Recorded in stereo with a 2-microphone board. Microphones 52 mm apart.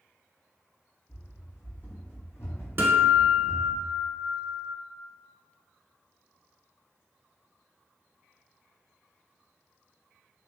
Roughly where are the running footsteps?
Left.